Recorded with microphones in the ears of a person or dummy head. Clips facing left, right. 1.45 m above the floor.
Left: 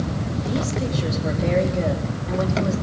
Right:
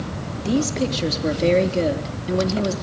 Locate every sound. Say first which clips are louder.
0.5 s a woman speaking: right 6 dB; 40° right (ahead or behind), 3 m